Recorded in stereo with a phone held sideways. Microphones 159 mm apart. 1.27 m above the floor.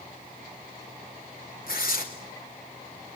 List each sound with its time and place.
1.7 s tearing paper: 65° left (ahead or behind), 3 m